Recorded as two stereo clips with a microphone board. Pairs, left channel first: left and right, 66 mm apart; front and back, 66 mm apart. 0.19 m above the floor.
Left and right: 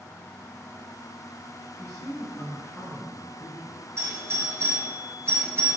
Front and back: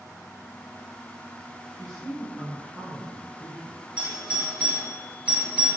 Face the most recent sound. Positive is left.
turn(degrees=-115)